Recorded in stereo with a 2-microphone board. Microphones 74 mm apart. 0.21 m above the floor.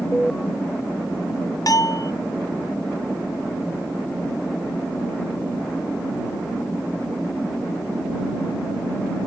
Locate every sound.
0.1 s an alarm: 5° left (ahead or behind)
1.7 s a bell: 55° left (ahead or behind)